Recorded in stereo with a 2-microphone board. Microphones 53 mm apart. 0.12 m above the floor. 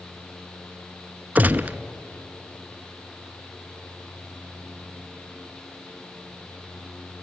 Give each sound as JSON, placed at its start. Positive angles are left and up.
{"t": 1.4, "sound": "a gunshot", "side_deg": -30, "distance_m": 0.6}